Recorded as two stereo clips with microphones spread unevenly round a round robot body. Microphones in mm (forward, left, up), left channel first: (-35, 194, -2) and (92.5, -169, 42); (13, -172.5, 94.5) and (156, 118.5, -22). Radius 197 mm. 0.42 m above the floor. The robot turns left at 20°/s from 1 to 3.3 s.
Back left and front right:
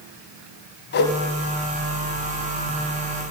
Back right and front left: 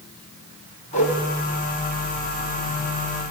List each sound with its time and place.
0.9 s a whoosh: 175° left, 0.5 m